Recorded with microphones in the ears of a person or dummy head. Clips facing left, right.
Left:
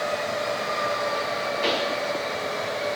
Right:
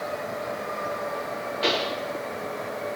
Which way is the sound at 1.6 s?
5° right (ahead or behind).